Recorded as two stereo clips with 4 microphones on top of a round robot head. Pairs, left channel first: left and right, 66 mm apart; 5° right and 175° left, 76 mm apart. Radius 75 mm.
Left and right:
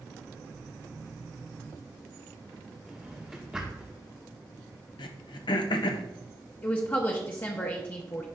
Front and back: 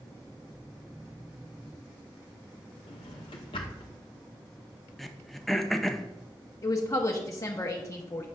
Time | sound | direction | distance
2.9 | a drawer | 10° right | 0.8 m
5.0 | throat clearing | 85° left | 0.6 m
6.6 | a woman speaking | 40° left | 0.9 m